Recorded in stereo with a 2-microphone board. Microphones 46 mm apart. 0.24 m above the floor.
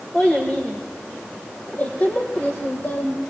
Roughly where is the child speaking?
Left.